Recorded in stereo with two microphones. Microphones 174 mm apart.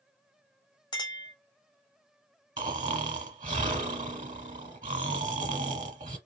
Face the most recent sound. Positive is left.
turn(degrees=-45)  # may be behind; listen again after turning